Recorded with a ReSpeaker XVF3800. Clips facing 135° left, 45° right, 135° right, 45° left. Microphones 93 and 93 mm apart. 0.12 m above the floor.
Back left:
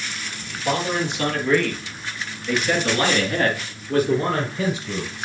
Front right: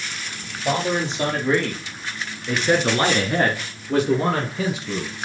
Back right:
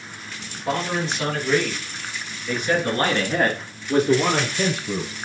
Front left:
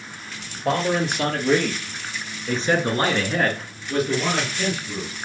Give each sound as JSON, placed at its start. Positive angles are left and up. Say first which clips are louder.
{"t": 0.7, "sound": "a man speaking", "louder": "front right 1 dB, front left 3 dB", "azimuth_deg": 25, "distance_m": 3.5}